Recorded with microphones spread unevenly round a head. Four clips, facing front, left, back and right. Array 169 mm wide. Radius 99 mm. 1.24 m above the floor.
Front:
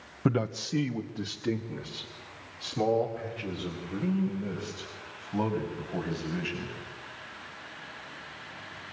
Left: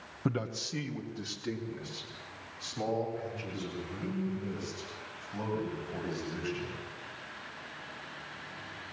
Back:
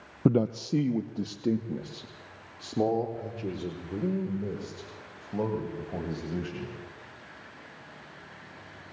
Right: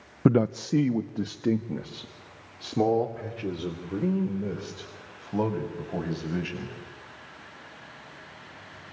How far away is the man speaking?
About 0.6 m.